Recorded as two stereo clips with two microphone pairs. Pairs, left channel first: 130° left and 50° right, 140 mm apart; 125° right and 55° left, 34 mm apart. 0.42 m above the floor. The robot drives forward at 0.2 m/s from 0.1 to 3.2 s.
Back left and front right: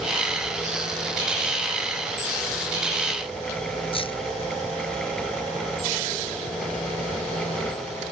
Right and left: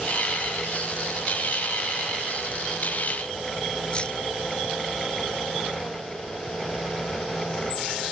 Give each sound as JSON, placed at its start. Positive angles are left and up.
{"t": 3.9, "sound": "keys jangling", "azimuth_deg": 180}